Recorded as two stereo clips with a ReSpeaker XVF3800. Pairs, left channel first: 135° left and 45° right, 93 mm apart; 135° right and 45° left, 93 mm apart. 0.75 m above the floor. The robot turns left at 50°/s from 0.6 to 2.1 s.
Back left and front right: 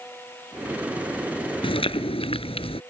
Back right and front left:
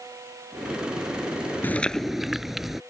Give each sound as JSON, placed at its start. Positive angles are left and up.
{"t": 1.6, "sound": "chewing", "azimuth_deg": 155}